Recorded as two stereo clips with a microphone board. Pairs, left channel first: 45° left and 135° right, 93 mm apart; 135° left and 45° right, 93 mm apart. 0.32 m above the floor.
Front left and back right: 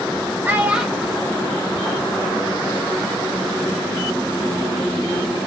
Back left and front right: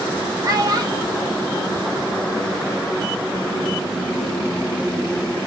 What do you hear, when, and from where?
0.4 s a child speaking: 70° right, 1.0 m; by 2.5 s straight ahead, 1.3 m